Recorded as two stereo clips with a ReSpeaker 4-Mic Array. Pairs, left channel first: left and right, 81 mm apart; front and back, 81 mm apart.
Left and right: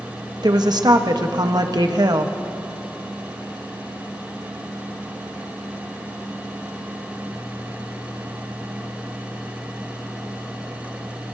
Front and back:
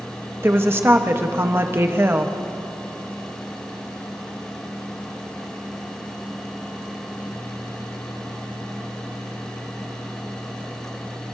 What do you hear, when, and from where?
0.4 s a woman speaking: 120° right, 1.0 m